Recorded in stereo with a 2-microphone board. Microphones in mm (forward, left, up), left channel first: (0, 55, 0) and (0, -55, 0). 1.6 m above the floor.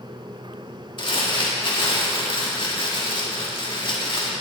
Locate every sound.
1.0 s crumpling: 50° left (ahead or behind), 2.0 m